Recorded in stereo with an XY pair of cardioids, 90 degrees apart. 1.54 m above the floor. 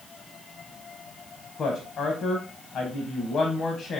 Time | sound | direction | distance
1.6 | a woman speaking | 65° left | 0.9 m